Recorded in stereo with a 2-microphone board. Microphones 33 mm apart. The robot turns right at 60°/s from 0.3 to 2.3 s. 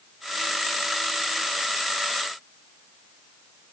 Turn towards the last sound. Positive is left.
No sound to turn to.